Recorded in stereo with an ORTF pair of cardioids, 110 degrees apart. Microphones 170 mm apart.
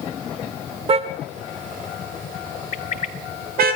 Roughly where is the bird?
Ahead left.